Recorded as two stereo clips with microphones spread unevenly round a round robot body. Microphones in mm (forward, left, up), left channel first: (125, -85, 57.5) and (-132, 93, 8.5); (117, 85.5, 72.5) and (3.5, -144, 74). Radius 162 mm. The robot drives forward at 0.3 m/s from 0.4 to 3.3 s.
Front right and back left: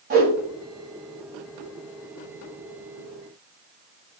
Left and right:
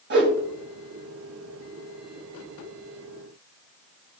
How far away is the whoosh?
About 2 m.